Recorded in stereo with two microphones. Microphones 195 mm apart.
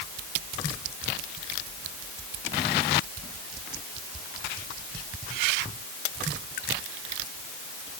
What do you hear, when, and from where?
Only background noise.